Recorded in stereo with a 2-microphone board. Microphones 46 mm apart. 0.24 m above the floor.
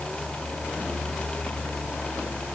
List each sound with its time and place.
Only background noise.